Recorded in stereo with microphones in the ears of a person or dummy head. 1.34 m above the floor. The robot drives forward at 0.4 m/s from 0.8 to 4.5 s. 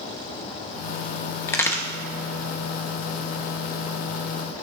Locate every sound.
1.5 s a crack: 10° left (ahead or behind), 1.3 m